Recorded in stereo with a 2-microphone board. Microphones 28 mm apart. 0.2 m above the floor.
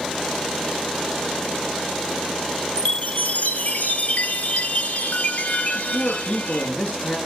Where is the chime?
65° left (ahead or behind), 0.9 m.